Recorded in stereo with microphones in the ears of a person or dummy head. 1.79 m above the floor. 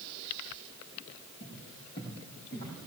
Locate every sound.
1.4 s footsteps: 40° left (ahead or behind), 6.5 m; by 2.9 s 35° left (ahead or behind), 5.5 m